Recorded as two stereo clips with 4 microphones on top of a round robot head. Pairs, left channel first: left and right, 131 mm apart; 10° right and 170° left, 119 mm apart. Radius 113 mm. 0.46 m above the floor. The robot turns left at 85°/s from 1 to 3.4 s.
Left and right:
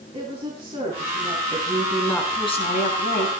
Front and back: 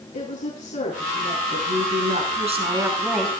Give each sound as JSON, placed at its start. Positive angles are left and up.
{"t": 0.1, "sound": "a woman speaking", "azimuth_deg": -35, "distance_m": 5.0}
{"t": 1.5, "sound": "a woman speaking", "azimuth_deg": -140, "distance_m": 6.5}